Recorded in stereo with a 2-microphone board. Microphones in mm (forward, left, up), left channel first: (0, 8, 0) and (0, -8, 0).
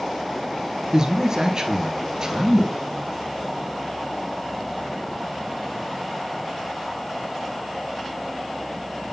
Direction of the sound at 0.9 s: 40° right (ahead or behind).